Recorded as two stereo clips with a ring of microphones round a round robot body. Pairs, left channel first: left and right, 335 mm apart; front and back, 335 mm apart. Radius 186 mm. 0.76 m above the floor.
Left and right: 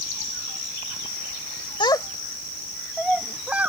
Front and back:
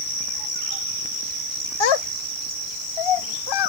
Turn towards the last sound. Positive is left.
turn(degrees=-5)